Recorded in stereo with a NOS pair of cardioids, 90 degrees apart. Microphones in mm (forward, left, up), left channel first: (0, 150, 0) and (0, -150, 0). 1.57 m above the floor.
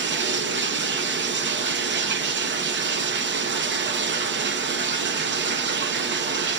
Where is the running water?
40° right, 0.9 m.